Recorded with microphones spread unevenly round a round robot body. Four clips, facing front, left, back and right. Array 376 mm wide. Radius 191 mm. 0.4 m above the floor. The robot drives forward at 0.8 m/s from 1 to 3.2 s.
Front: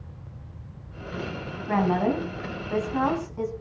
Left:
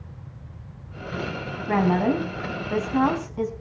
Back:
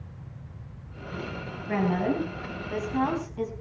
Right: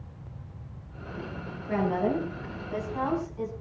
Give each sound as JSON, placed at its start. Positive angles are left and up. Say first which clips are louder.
{"t": 1.7, "sound": "a woman speaking", "louder": "left 5 dB, front 3 dB", "azimuth_deg": 70, "distance_m": 4.0}